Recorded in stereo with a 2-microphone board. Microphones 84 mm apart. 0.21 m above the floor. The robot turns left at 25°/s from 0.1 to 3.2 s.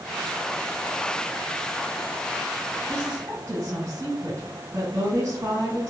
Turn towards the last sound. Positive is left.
turn(degrees=-40)  # may be behind; listen again after turning